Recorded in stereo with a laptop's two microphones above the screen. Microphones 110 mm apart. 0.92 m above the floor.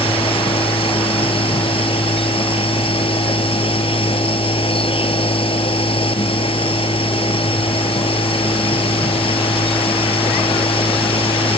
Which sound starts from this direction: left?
A machine running, at 0.0 s.